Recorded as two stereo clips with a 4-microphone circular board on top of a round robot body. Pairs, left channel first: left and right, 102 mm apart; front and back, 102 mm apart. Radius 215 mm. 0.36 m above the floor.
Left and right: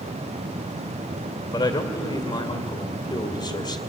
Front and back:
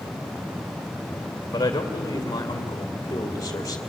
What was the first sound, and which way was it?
A man speaking, 55° left.